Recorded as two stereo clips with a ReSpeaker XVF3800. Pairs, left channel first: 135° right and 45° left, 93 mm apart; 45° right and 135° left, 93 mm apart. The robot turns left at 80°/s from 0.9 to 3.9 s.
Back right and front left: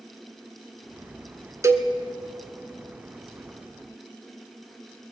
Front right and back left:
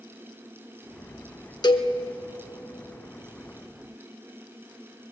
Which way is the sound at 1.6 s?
10° right.